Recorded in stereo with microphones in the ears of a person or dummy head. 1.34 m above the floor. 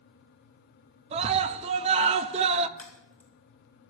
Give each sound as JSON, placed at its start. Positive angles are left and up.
{"t": 1.1, "sound": "a scream", "side_deg": -30, "distance_m": 0.5}
{"t": 2.8, "sound": "a crack", "side_deg": 10, "distance_m": 3.5}